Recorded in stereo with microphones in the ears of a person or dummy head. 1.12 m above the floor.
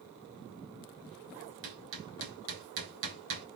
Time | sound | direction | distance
1.6 | hammering | 65° right (ahead or behind) | 2 m